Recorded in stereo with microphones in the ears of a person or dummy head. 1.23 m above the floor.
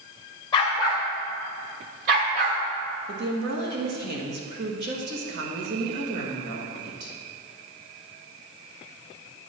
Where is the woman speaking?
60° right (ahead or behind), 1.5 m.